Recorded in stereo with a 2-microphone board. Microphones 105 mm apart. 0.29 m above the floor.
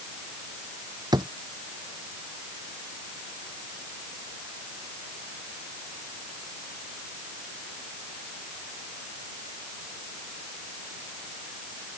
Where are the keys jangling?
I don't hear keys jangling.